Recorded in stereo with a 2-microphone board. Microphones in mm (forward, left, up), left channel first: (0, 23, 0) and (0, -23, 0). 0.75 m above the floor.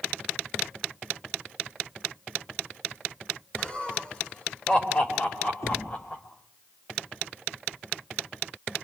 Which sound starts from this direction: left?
Knocking, at 5.6 s.